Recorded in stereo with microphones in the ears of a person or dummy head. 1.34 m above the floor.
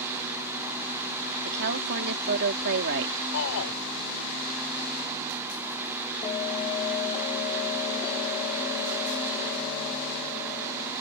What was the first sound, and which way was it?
A woman speaking, 55° right (ahead or behind).